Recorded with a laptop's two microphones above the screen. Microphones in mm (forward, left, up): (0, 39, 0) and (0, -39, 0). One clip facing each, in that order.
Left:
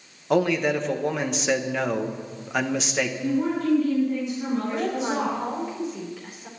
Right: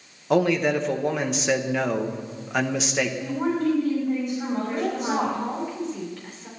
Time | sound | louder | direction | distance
0.3 | a man speaking | right 1 dB | centre (ahead or behind) | 0.9 m
3.2 | a woman speaking | left 2 dB | 45° right (ahead or behind) | 5 m
4.7 | a woman speaking | even | 5° left (ahead or behind) | 4 m